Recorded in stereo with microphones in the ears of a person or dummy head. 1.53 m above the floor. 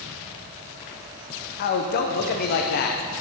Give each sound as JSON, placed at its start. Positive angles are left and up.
{"t": 1.6, "sound": "a man speaking", "side_deg": 50, "distance_m": 0.9}